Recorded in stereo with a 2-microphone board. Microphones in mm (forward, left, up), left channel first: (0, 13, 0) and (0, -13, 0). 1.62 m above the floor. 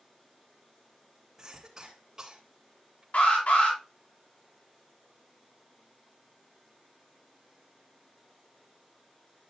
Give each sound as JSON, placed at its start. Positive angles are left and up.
{"t": 1.4, "sound": "a cough", "side_deg": -20, "distance_m": 3.0}
{"t": 3.1, "sound": "an alarm", "side_deg": 85, "distance_m": 6.0}